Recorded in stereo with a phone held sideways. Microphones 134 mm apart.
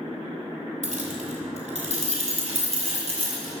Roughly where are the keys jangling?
Right.